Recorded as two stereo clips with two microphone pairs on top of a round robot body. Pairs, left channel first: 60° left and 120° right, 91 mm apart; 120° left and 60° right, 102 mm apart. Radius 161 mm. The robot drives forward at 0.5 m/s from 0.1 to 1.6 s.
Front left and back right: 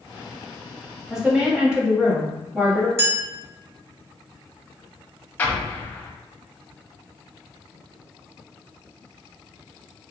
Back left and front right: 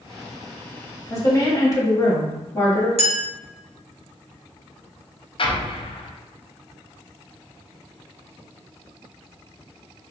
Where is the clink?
55° right, 1.0 m.